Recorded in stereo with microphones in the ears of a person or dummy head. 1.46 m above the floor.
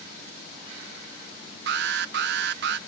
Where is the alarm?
60° right (ahead or behind).